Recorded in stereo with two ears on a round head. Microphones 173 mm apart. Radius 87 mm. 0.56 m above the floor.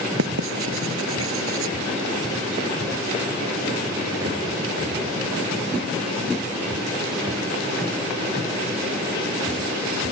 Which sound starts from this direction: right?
Writing, at 0.2 s.